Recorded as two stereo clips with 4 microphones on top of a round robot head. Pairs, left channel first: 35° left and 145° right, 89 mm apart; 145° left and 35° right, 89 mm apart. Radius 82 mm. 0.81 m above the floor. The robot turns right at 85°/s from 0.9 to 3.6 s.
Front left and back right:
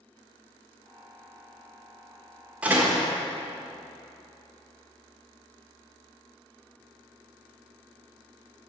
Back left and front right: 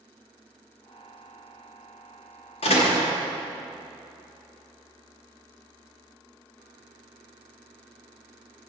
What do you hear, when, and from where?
2.6 s a door slam: 140° left, 1.3 m; by 3.1 s 175° left, 1.3 m